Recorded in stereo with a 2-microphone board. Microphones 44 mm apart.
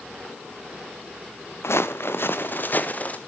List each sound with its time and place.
1.6 s footsteps: 80° left, 1.3 m; by 3.2 s 35° left (ahead or behind), 1.6 m